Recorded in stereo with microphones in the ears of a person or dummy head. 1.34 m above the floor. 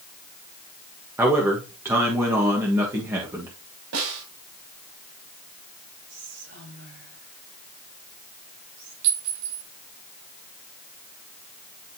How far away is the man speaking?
About 1.4 m.